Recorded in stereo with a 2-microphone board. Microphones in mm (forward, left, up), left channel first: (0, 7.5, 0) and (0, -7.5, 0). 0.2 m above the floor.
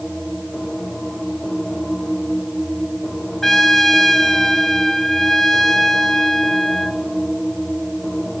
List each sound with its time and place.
3.4 s a trumpet: 15° left (ahead or behind), 1.9 m